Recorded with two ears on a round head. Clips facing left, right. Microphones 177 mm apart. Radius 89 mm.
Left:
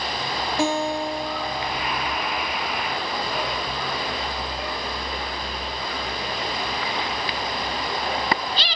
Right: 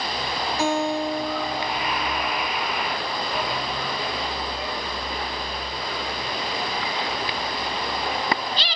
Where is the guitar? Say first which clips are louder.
Even; 25° left (ahead or behind), 4.5 m.